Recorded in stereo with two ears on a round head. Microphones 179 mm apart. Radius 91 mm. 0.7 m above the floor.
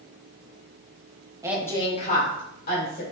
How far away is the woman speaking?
About 0.6 m.